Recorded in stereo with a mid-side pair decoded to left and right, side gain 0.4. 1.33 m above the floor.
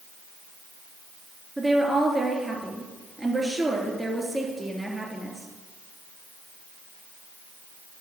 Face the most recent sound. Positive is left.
turn(degrees=-15)